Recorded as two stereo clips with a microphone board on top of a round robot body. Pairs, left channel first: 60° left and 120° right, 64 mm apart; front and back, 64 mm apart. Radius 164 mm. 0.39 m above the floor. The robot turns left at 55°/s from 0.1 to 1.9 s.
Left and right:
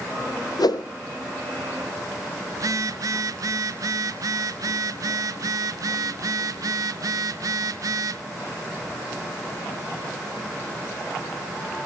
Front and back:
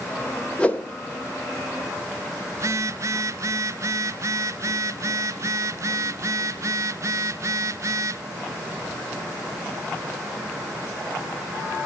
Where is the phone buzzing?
140° right, 0.5 m.